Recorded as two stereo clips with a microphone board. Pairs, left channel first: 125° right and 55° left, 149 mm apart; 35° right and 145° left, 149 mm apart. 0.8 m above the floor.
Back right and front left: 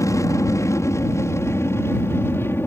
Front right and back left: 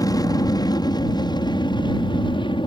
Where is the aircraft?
75° right; by 2.7 s 60° right.